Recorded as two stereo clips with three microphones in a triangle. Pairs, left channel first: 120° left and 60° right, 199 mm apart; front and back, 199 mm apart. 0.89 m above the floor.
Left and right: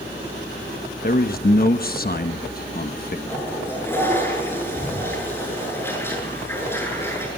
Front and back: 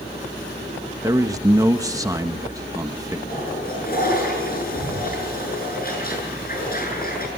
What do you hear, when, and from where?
1.0 s a man speaking: 110° left, 0.9 m
3.3 s a toilet flushing: 40° left, 8 m